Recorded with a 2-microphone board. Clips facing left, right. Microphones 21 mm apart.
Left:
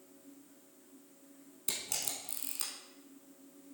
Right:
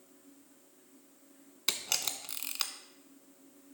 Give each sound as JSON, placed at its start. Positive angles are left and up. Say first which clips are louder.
{"t": 1.7, "sound": "a camera shutter", "louder": "right 6 dB", "side_deg": -55, "distance_m": 0.8}